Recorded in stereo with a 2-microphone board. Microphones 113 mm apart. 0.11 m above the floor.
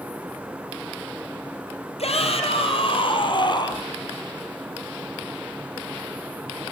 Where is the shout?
60° left (ahead or behind), 4 m; by 3.9 s 35° left (ahead or behind), 4 m.